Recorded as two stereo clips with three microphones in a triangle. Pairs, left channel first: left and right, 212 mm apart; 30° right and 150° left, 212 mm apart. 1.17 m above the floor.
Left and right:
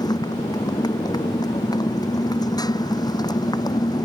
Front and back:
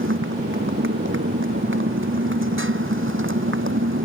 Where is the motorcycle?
160° left.